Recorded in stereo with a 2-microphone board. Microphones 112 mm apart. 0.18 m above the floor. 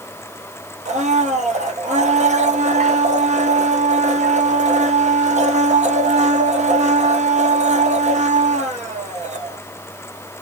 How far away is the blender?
About 0.8 m.